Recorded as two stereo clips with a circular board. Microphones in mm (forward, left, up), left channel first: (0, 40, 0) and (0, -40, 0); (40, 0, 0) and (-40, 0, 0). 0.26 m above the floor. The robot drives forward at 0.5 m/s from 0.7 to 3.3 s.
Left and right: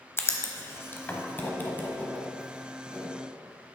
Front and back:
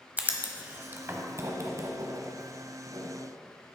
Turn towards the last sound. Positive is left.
turn(degrees=165)